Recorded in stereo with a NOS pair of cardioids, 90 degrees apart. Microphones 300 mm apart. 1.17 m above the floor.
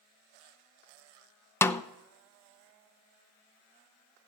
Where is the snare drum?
10° left, 0.7 m.